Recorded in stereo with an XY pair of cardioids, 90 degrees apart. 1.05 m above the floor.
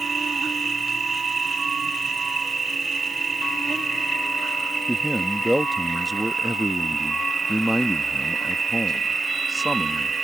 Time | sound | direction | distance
0.0 | an insect | 35° right | ?
4.9 | a man speaking | straight ahead | ?